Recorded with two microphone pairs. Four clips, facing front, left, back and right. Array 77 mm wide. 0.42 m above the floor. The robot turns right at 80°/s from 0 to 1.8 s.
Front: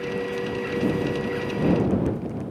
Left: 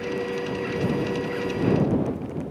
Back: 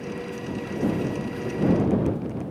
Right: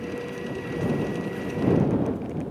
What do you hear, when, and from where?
Only background noise.